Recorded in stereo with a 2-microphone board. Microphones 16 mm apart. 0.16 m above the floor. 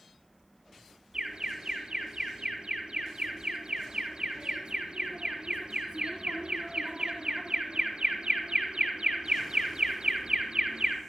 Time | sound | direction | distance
1.1 | an alarm | 55° right (ahead or behind) | 4 m